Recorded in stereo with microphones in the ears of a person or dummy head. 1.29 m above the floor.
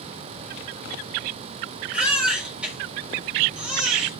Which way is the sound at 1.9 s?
5° right (ahead or behind).